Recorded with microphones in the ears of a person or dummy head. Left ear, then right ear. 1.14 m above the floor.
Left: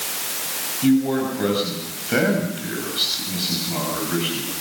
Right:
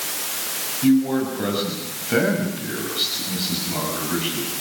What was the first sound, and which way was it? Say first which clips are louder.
A man speaking: even; 10° left (ahead or behind).